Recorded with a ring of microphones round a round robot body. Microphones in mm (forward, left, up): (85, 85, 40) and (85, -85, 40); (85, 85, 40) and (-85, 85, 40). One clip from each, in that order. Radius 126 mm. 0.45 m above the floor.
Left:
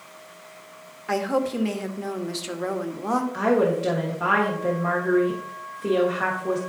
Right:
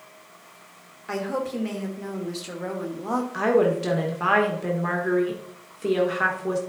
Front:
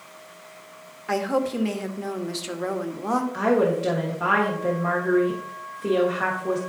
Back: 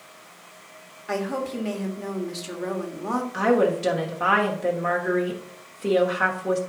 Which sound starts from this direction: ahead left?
A woman speaking, at 1.1 s.